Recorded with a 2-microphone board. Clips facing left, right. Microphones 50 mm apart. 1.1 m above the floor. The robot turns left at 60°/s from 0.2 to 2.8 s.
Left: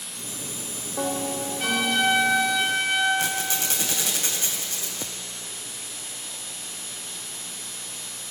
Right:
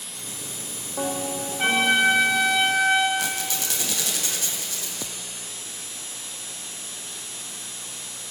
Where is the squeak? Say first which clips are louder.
Left 1 dB; 30° left (ahead or behind), 3 m.